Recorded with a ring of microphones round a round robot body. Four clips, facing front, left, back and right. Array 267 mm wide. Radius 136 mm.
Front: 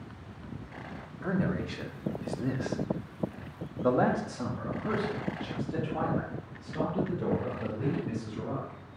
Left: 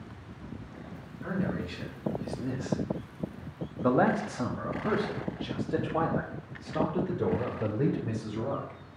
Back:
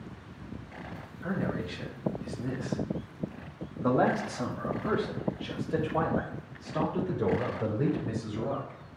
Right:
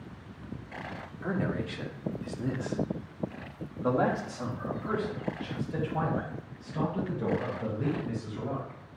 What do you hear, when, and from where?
1.2 s a man speaking: 40° right, 1.8 m; by 8.8 s 120° left, 4 m